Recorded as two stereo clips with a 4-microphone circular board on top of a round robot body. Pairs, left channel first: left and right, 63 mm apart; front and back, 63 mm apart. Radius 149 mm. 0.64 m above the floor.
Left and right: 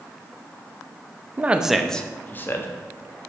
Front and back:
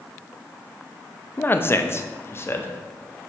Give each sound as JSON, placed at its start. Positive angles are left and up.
{"t": 1.4, "sound": "a man speaking", "azimuth_deg": -40, "distance_m": 1.2}